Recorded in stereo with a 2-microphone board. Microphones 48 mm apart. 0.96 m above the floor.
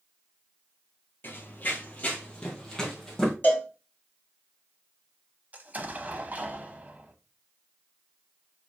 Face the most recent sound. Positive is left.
turn(degrees=-30)  # may be behind; listen again after turning